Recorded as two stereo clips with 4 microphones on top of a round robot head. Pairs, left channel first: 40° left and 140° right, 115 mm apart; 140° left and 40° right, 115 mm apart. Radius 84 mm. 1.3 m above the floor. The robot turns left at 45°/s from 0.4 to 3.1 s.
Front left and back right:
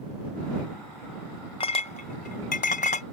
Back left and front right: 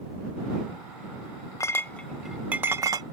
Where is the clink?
80° left; by 3.0 s 15° left.